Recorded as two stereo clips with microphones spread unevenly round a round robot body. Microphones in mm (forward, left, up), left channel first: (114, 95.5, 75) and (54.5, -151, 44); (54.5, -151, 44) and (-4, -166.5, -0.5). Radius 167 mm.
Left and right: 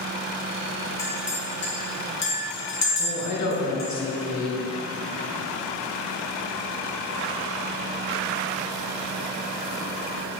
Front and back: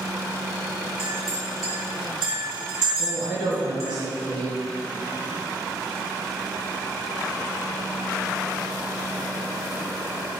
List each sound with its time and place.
1.0 s a clink: 130° left, 1.9 m
3.0 s a woman speaking: 80° left, 2.5 m